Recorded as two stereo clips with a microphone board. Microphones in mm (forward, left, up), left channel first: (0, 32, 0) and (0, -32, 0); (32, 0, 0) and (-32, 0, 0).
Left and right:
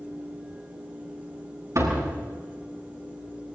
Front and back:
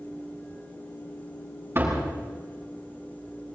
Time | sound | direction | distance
1.8 | a door slam | 125° right | 8 m